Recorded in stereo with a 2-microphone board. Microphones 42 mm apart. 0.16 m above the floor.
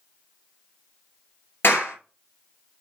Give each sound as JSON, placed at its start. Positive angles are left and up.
{"t": 1.6, "sound": "a clap", "side_deg": 60, "distance_m": 2.5}